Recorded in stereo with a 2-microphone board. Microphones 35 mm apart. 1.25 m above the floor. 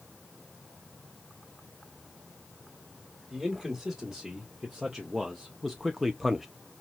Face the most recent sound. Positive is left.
turn(degrees=0)  # may be behind; listen again after turning